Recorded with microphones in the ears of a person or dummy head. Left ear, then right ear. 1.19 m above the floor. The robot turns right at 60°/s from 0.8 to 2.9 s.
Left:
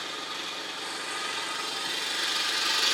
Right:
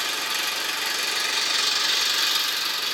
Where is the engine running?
120° right, 0.7 m; by 3.0 s 5° left, 0.7 m.